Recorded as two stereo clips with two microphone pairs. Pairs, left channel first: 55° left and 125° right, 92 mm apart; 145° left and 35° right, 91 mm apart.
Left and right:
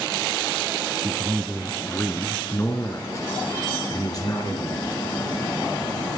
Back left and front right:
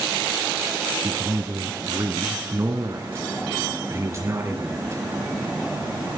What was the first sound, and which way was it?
A man speaking, 45° right.